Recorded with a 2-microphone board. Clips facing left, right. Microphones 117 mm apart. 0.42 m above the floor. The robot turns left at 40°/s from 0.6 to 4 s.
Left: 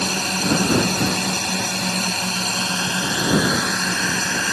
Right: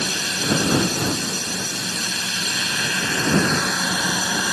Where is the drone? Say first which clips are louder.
Left 4 dB; 120° left; by 4.5 s 15° right.